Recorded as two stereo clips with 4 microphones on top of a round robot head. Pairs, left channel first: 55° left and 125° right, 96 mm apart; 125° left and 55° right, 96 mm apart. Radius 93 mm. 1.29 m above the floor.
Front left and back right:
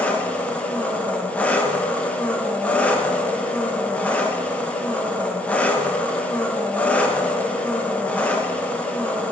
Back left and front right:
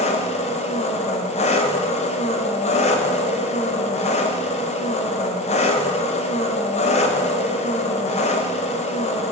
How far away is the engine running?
About 1.3 m.